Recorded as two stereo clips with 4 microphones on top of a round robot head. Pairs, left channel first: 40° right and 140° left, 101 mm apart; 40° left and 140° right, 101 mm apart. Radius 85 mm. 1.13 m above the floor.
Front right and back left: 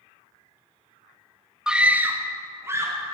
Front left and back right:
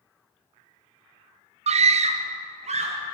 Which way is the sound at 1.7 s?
140° right.